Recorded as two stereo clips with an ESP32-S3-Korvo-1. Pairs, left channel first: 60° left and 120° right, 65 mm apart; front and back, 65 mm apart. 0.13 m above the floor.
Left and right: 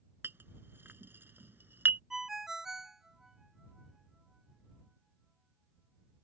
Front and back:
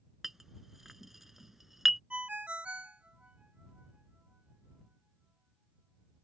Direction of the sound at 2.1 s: 170° left.